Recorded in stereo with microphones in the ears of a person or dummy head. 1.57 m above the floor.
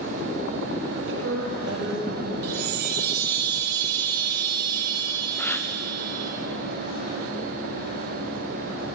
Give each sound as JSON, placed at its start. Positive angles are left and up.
{"t": 0.9, "sound": "a woman speaking", "side_deg": -60, "distance_m": 2.5}
{"t": 2.4, "sound": "a chime", "side_deg": -50, "distance_m": 2.5}
{"t": 5.4, "sound": "a gasp", "side_deg": 0, "distance_m": 0.6}